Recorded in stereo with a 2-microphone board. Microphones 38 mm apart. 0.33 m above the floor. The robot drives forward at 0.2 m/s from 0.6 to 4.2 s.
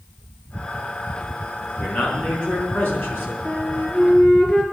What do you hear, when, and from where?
1.8 s a man speaking: 70° left (ahead or behind), 4.5 m
3.5 s a flute: 25° left (ahead or behind), 3 m